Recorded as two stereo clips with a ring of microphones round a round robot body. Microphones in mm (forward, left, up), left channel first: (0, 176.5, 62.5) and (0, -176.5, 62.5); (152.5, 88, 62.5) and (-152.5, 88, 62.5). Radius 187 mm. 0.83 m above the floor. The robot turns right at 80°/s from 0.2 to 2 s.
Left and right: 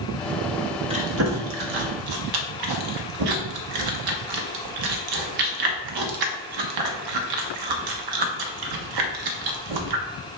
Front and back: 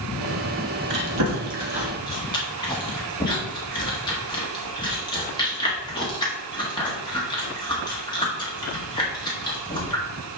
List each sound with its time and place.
0.9 s chewing: 165° right, 1.4 m; by 10.1 s 75° right, 1.4 m